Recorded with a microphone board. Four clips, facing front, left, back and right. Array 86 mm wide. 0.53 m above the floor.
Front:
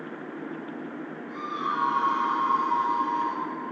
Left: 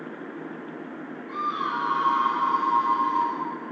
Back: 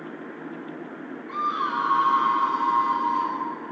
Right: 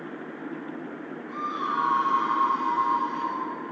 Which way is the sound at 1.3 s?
165° left.